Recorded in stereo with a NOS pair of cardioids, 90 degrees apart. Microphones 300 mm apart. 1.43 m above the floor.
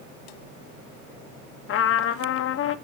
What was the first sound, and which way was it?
A trumpet, 45° left.